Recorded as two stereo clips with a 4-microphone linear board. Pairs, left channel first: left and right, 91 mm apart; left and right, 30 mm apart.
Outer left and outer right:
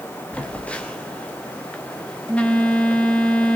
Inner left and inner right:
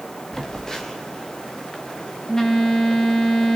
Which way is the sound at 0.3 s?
15° left (ahead or behind).